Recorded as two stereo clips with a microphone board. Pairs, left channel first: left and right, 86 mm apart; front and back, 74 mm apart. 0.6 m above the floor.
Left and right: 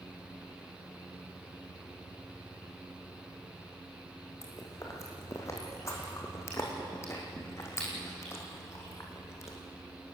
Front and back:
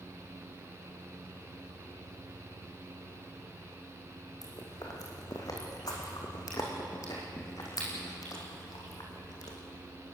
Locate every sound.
4.4 s chewing: 35° left, 5 m